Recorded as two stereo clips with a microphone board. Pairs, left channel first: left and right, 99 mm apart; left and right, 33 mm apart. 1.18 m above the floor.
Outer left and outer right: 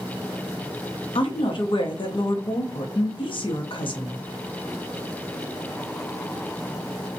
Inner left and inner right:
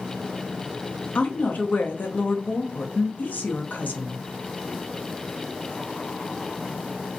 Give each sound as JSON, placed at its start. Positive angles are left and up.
{"t": 1.1, "sound": "a woman speaking", "side_deg": 65, "distance_m": 0.6}